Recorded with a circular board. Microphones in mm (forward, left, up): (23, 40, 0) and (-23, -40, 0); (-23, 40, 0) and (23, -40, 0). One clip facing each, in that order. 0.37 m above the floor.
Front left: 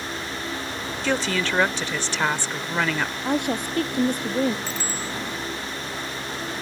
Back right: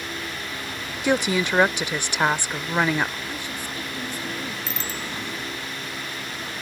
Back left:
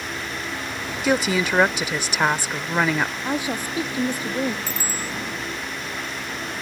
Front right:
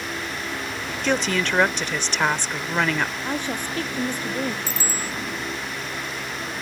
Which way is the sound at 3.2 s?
40° left.